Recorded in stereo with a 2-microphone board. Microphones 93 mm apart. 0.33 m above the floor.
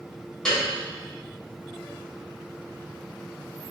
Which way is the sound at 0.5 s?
5° left (ahead or behind).